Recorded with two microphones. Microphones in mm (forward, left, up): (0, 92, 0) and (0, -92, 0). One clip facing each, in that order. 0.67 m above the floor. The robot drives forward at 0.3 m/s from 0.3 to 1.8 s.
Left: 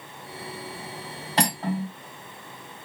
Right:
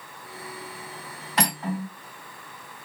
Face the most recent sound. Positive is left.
turn(degrees=30)  # may be behind; listen again after turning